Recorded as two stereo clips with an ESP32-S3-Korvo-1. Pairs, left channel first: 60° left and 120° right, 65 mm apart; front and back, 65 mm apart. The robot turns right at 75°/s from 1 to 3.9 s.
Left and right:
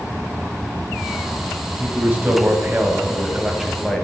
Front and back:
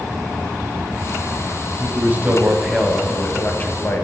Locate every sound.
1.8 s a man speaking: 175° right, 1.4 m; by 4.0 s 20° right, 1.4 m